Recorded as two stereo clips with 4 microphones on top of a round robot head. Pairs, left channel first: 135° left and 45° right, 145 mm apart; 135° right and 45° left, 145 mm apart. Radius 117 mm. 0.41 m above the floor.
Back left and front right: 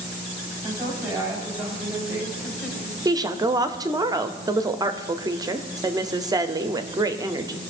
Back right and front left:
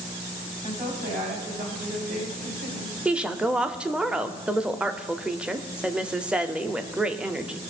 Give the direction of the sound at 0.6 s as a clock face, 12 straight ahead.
11 o'clock.